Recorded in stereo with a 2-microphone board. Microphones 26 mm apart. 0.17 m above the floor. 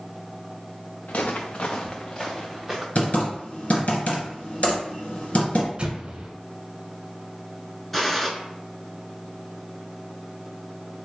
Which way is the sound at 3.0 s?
55° left (ahead or behind).